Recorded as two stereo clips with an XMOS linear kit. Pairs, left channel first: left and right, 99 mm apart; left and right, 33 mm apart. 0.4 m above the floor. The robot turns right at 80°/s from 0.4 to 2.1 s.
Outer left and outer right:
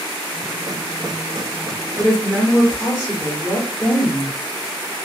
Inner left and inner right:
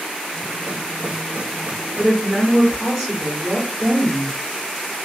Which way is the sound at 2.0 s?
10° right (ahead or behind).